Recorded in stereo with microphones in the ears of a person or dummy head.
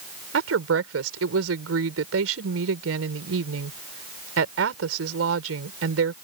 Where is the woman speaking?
75° right (ahead or behind).